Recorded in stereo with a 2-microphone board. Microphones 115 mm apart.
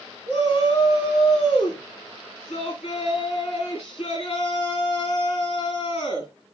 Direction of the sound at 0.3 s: 60° left (ahead or behind).